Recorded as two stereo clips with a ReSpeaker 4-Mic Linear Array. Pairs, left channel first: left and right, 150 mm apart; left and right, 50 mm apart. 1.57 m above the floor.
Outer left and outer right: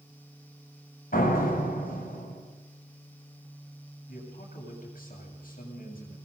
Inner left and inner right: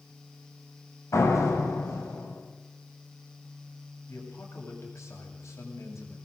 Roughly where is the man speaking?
Left.